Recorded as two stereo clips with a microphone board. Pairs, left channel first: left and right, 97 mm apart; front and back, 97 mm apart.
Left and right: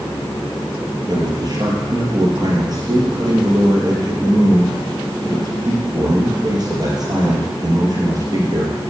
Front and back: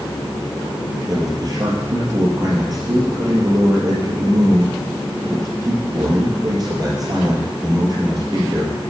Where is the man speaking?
135° right, 3.5 m.